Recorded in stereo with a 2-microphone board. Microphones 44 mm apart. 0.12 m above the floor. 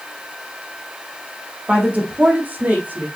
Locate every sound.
1.7 s a woman speaking: 35° right (ahead or behind), 3 m; by 3.1 s 40° right (ahead or behind), 4.5 m